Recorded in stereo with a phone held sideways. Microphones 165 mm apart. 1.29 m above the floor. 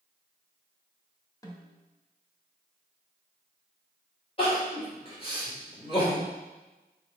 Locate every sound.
1.4 s a snare drum: 20° left (ahead or behind), 1.2 m
4.4 s crying: 35° left (ahead or behind), 3 m